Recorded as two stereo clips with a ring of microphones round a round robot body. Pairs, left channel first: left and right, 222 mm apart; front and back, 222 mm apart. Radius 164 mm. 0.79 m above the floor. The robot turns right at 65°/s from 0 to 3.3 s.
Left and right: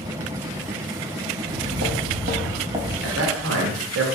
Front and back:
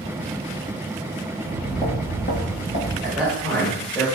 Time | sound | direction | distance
1.4 | footsteps | 115° right | 1.1 m
3.0 | a man speaking | 105° right | 1.1 m